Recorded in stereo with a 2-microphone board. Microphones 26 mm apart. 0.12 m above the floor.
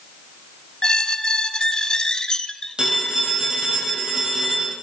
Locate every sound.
0.8 s a squeak: 30° left (ahead or behind), 0.7 m
2.8 s a phone ringing: 30° right (ahead or behind), 3.5 m